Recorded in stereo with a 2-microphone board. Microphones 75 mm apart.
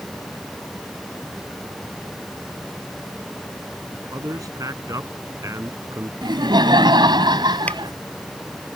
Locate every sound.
4.1 s a man speaking: 55° right (ahead or behind); by 6.1 s 40° right (ahead or behind)
6.2 s laughter: 85° right
7.7 s a finger snap: 20° left (ahead or behind)